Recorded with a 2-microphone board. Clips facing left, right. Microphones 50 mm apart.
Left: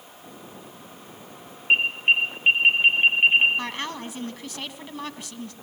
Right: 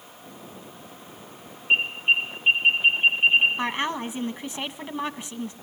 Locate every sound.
1.7 s an alarm: 45° left (ahead or behind), 5.5 m
3.6 s a woman speaking: 25° right (ahead or behind), 1.3 m